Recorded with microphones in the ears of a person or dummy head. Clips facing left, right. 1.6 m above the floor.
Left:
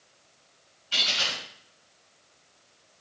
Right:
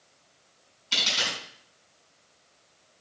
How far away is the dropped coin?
About 3.5 m.